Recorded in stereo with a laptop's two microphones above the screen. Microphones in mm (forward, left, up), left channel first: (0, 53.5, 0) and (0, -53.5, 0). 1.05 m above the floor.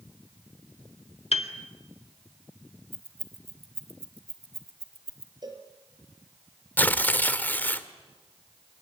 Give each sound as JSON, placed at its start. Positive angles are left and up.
{"t": 1.3, "sound": "a piano", "side_deg": 70, "distance_m": 1.8}
{"t": 2.9, "sound": "keys jangling", "side_deg": -65, "distance_m": 2.0}
{"t": 5.4, "sound": "a cowbell", "side_deg": -40, "distance_m": 4.5}
{"t": 6.8, "sound": "tearing paper", "side_deg": 15, "distance_m": 1.4}